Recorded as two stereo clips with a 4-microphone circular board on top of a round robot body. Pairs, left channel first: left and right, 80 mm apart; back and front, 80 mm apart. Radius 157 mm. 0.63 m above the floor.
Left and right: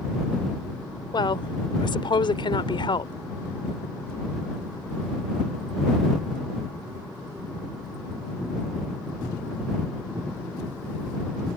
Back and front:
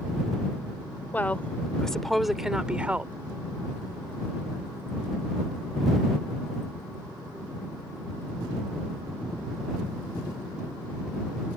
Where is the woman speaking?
110° left; by 3.1 s 70° left.